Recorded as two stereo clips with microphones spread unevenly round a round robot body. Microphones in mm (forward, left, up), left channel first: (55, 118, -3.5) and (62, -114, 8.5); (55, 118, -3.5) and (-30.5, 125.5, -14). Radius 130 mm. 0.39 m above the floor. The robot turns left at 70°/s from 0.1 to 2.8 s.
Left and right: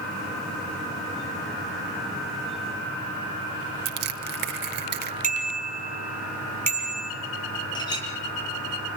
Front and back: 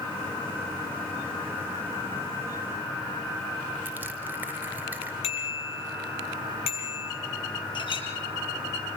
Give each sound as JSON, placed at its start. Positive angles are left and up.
{"t": 3.9, "sound": "crushing", "azimuth_deg": -120, "distance_m": 1.6}
{"t": 5.2, "sound": "a bicycle bell", "azimuth_deg": -30, "distance_m": 8.0}
{"t": 7.8, "sound": "a clink", "azimuth_deg": 20, "distance_m": 6.5}